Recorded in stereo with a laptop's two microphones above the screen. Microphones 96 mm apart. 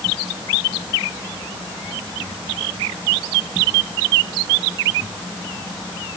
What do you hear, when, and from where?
Only background noise.